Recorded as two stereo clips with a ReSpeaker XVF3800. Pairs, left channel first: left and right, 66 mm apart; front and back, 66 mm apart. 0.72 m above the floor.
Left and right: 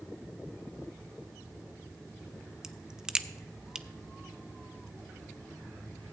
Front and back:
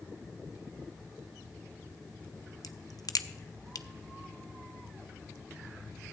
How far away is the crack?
About 0.5 m.